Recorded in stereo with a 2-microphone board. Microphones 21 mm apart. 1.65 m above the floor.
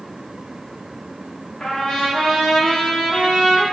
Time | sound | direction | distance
1.6 | a trumpet | 70° left (ahead or behind) | 1.2 m